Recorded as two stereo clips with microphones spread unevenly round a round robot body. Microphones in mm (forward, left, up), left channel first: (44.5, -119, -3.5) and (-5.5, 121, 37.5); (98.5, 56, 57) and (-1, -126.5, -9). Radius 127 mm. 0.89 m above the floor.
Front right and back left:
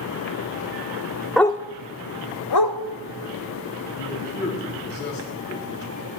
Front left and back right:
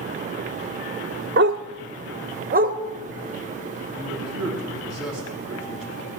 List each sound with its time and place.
1.4 s a dog barking: straight behind, 0.5 m; by 2.8 s 60° right, 1.4 m
4.0 s a man speaking: 30° right, 7 m